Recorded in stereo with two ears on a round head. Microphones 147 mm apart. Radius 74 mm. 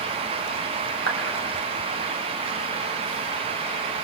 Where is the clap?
75° right (ahead or behind), 4.5 m.